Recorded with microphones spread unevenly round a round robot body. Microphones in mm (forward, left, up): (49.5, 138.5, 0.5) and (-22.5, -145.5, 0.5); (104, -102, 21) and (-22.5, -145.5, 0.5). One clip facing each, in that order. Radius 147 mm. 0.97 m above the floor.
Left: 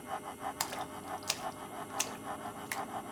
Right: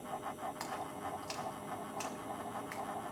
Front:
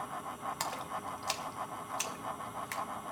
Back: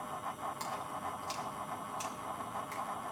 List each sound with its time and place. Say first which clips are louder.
0.6 s a splash: even, front 1 dB; 40° left, 0.6 m